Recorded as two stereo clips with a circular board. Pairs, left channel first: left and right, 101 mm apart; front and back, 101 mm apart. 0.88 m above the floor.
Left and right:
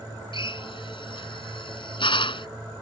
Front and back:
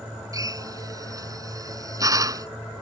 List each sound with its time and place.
0.3 s a drill: 125° left